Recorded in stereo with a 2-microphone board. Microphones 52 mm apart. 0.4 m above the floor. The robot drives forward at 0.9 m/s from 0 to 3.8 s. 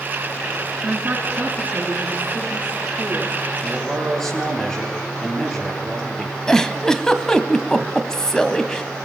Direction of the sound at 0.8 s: 30° right (ahead or behind).